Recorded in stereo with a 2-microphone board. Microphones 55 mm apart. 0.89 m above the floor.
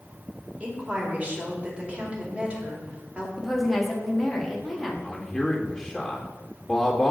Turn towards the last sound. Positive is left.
turn(degrees=0)  # may be behind; listen again after turning